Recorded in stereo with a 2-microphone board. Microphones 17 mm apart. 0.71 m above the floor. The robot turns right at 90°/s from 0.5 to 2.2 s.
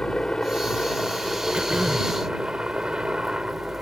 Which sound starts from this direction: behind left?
A helicopter, at 0.0 s.